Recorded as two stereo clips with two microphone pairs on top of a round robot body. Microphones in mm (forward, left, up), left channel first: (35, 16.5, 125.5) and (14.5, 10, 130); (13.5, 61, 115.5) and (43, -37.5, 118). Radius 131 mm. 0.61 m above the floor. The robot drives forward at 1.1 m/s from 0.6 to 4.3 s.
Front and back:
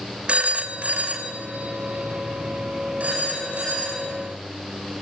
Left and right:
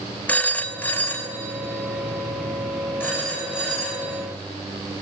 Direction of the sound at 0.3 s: Straight behind.